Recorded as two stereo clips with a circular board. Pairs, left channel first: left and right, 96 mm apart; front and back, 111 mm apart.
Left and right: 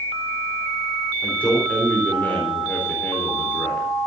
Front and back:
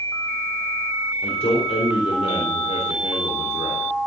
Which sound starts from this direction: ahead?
A man speaking, at 1.2 s.